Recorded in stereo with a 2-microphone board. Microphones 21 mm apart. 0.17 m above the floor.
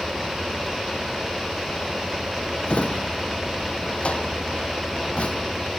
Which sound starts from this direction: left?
A drawer, at 2.7 s.